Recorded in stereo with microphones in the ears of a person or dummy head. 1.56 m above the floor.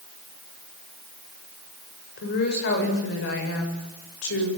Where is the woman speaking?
55° left (ahead or behind), 7.5 m; by 4.5 s 75° left (ahead or behind), 8 m.